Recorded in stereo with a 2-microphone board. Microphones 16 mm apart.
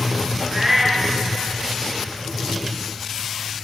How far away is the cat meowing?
About 3 m.